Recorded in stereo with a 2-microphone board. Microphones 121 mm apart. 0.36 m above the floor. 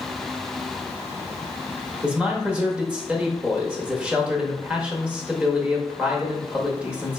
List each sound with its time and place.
2.0 s a man speaking: 10° right (ahead or behind), 0.9 m